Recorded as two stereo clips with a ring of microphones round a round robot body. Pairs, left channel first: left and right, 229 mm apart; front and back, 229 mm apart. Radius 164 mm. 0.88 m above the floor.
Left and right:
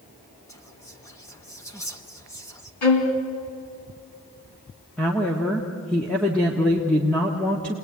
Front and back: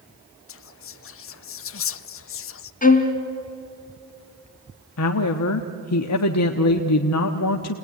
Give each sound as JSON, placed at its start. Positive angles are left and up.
{"t": 0.5, "sound": "whispering", "azimuth_deg": 10, "distance_m": 0.9}
{"t": 2.8, "sound": "a violin", "azimuth_deg": 55, "distance_m": 3.0}
{"t": 5.0, "sound": "a woman speaking", "azimuth_deg": 5, "distance_m": 1.2}